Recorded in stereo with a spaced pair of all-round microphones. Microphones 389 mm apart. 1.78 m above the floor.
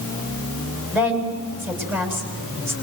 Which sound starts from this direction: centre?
A woman speaking, at 0.9 s.